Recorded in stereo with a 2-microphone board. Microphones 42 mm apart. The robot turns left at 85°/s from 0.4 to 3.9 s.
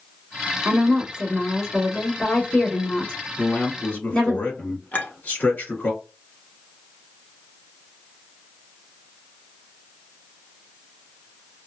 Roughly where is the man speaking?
Behind left.